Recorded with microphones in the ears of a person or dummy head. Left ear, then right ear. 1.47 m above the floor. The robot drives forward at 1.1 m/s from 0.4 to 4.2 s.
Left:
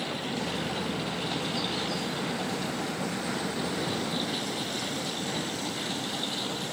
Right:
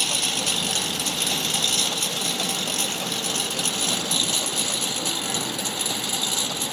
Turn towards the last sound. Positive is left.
turn(degrees=-65)  # may be behind; listen again after turning